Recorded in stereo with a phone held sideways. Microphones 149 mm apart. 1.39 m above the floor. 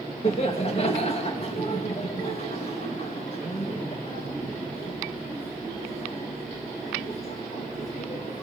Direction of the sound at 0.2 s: 45° left (ahead or behind).